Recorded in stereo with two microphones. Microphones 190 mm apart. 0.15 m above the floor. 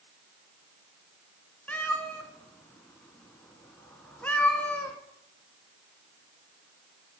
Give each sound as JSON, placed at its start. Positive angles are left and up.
{"t": 1.7, "sound": "a cat meowing", "side_deg": 10, "distance_m": 0.8}